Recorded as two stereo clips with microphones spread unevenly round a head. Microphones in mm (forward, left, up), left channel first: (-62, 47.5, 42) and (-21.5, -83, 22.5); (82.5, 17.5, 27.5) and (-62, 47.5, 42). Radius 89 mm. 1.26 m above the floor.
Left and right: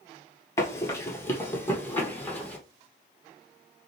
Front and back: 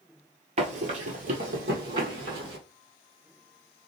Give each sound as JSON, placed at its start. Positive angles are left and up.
{"t": 0.6, "sound": "running footsteps", "azimuth_deg": 160, "distance_m": 1.7}